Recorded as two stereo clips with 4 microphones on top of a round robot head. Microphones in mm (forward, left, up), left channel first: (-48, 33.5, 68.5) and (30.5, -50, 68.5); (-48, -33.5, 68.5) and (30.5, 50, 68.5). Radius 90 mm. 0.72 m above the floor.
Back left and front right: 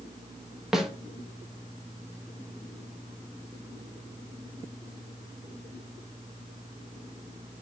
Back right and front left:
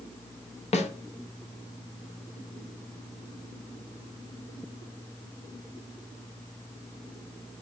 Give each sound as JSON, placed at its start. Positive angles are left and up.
{"t": 0.7, "sound": "a snare drum", "azimuth_deg": -130, "distance_m": 0.8}